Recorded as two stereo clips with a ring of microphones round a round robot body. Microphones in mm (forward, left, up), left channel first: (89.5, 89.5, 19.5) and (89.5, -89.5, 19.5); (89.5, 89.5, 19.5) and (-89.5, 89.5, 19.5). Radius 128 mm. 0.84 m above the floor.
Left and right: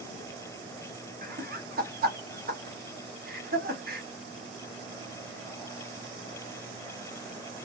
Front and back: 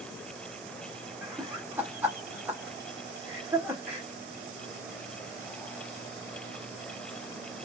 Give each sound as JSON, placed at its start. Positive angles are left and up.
{"t": 1.2, "sound": "laughter", "azimuth_deg": -100, "distance_m": 1.2}